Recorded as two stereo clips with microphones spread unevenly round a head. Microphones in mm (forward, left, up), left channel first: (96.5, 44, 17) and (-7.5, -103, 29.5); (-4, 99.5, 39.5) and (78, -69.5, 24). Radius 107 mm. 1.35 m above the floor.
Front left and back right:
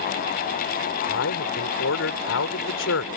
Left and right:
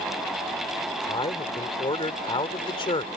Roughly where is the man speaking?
Ahead left.